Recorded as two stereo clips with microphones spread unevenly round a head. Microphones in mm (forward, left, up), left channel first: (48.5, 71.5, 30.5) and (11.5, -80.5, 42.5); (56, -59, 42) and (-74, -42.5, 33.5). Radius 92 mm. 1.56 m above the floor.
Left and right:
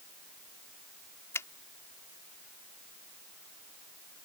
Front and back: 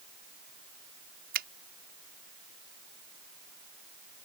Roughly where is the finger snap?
Behind left.